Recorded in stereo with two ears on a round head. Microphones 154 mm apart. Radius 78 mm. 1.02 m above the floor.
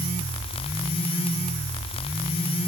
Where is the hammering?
I don't hear hammering.